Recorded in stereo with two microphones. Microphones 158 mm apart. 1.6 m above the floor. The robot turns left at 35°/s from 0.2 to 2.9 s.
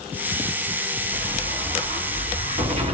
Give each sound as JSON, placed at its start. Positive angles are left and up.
{"t": 1.1, "sound": "an explosion", "azimuth_deg": -75, "distance_m": 1.8}